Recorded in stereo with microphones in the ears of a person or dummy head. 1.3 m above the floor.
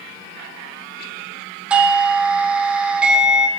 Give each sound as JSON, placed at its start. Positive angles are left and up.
{"t": 1.7, "sound": "a doorbell", "side_deg": -5, "distance_m": 0.7}